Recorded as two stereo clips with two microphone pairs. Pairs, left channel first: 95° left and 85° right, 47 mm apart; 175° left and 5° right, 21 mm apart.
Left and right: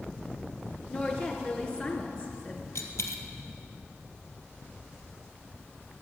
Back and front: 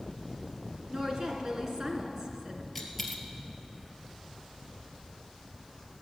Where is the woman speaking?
40° left, 2.5 m.